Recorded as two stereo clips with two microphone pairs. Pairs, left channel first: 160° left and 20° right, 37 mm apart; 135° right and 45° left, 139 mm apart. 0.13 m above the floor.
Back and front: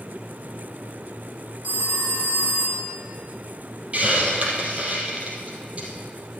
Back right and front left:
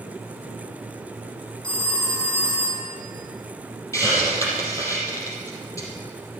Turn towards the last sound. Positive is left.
turn(degrees=-70)